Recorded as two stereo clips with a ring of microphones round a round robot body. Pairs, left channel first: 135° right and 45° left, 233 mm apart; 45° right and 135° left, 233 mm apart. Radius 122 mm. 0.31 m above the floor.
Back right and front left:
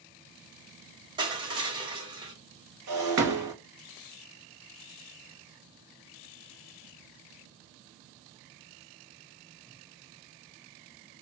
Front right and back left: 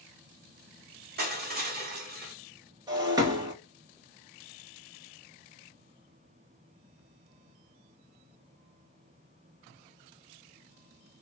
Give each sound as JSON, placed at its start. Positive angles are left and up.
{"t": 1.2, "sound": "crushing", "azimuth_deg": 110, "distance_m": 1.6}
{"t": 2.9, "sound": "breaking glass", "azimuth_deg": 60, "distance_m": 1.8}